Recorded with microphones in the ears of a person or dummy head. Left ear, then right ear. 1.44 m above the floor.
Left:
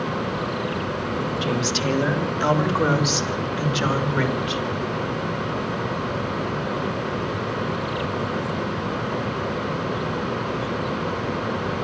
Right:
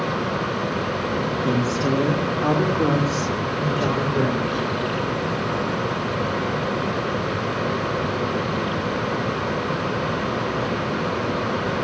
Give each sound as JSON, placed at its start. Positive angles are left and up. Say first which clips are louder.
{"t": 1.4, "sound": "a woman speaking", "louder": "left 2 dB", "side_deg": 60, "distance_m": 2.5}